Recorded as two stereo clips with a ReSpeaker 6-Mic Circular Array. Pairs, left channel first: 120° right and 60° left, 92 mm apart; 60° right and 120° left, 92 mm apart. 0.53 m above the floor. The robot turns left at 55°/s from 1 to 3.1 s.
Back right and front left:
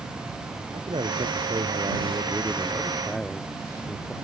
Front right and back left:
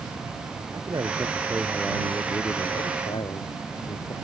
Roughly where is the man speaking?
Left.